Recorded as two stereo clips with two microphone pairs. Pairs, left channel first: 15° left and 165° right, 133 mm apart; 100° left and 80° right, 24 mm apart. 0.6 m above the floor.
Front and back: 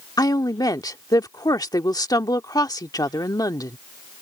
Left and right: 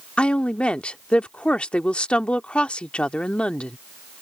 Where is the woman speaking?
75° left.